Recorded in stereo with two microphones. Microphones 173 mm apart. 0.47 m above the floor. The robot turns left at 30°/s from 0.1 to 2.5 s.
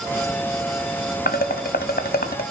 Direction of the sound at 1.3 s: 70° left (ahead or behind).